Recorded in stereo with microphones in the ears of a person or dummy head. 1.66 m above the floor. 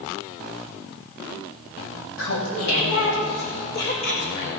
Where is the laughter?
80° left, 3 m.